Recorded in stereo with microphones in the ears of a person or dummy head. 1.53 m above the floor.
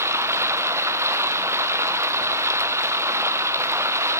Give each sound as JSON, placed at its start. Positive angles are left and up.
{"t": 0.0, "sound": "running water", "side_deg": -15, "distance_m": 0.9}